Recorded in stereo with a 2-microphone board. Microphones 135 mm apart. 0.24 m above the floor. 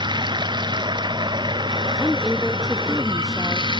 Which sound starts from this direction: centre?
A woman speaking, at 2.0 s.